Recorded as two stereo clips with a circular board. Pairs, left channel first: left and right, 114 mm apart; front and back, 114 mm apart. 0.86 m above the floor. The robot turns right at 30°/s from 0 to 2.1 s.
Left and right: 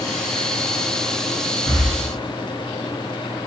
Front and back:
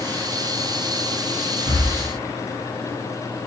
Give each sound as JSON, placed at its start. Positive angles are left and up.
{"t": 1.6, "sound": "breathing", "azimuth_deg": 140, "distance_m": 0.8}